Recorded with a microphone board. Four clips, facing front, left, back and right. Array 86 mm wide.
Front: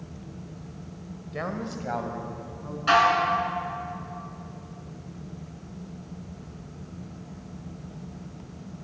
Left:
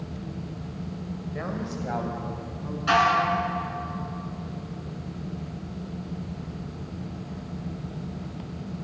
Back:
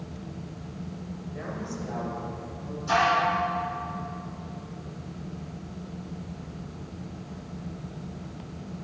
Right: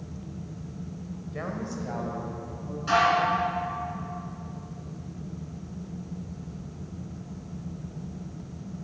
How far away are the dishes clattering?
About 2.5 m.